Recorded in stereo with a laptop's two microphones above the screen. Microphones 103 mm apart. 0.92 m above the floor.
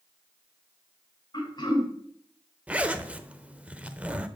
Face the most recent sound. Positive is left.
turn(degrees=-15)  # may be behind; listen again after turning